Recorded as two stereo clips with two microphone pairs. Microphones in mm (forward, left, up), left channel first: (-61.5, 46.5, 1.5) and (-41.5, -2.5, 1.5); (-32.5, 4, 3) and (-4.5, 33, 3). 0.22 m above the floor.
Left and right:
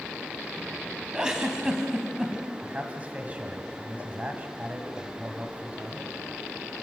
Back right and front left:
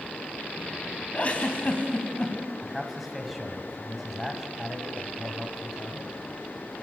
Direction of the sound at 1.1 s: 135° right.